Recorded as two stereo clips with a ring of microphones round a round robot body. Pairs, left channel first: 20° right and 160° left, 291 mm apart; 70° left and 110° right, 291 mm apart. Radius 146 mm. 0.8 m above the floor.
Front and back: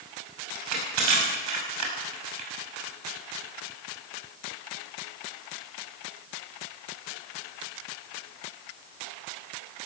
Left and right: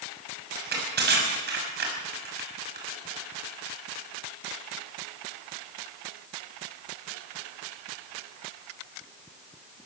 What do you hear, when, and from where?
0.6 s crushing: 170° right, 6 m